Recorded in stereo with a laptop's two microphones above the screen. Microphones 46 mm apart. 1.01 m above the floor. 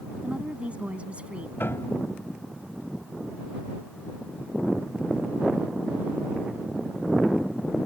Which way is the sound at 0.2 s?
25° right (ahead or behind).